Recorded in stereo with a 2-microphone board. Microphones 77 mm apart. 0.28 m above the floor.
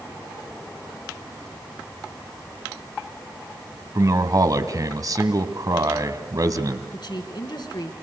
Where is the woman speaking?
65° left (ahead or behind), 3.5 m.